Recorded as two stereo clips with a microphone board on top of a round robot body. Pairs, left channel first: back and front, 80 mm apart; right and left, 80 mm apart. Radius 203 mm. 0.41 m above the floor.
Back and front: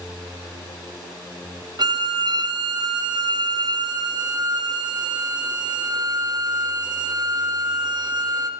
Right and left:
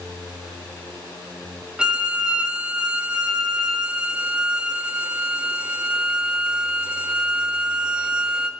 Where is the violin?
10° left, 0.7 m.